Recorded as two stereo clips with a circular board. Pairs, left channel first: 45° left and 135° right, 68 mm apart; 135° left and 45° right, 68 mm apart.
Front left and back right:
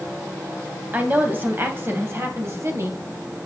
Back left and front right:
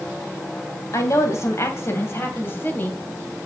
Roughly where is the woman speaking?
Behind.